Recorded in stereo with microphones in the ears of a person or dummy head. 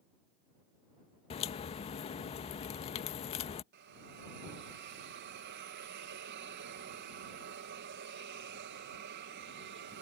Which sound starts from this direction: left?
A crack, at 1.3 s.